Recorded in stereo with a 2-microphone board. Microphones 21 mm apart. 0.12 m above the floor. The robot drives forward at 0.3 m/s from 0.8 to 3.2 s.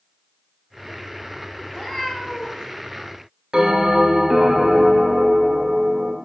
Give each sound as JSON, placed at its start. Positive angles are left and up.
{"t": 1.6, "sound": "a cat meowing", "side_deg": 20, "distance_m": 1.0}
{"t": 3.5, "sound": "a bell", "side_deg": -30, "distance_m": 0.8}